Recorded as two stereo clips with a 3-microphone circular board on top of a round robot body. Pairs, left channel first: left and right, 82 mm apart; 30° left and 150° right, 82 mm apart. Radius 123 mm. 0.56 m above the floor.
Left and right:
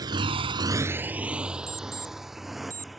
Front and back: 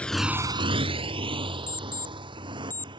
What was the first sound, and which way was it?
A motorcycle, 45° right.